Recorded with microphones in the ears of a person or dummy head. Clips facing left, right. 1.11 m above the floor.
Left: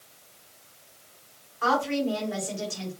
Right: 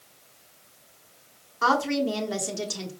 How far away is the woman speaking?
About 1.0 m.